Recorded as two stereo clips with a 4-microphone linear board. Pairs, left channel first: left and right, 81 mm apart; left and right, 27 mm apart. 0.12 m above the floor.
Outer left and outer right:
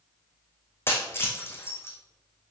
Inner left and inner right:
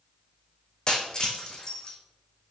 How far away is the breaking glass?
About 1.6 m.